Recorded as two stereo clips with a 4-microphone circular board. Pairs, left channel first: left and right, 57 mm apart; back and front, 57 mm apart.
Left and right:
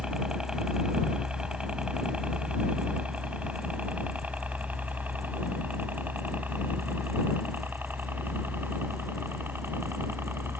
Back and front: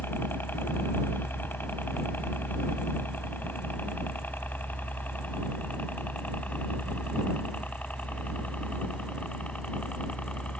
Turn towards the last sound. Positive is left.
turn(degrees=-120)